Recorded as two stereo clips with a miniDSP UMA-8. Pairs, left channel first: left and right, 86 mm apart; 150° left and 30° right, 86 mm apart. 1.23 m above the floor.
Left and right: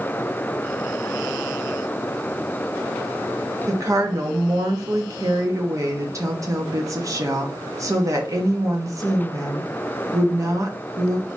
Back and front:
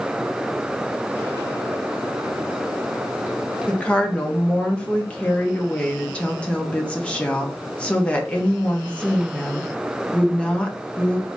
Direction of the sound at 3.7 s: 135° right.